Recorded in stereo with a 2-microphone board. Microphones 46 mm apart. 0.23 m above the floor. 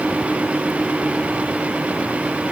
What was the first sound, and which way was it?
Only background noise.